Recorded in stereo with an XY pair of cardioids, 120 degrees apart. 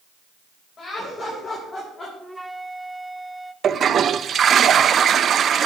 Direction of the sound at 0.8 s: 35° left.